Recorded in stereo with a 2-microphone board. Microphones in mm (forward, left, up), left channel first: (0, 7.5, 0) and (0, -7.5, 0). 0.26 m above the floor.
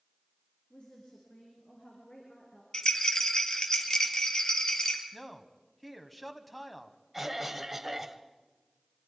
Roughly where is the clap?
I don't hear a clap.